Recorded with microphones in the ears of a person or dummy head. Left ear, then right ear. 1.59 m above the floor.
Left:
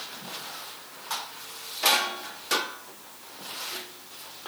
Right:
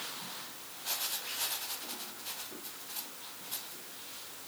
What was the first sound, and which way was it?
Only background noise.